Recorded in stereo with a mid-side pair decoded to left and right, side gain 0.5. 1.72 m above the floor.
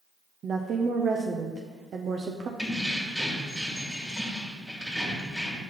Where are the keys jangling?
Straight ahead, 1.9 m.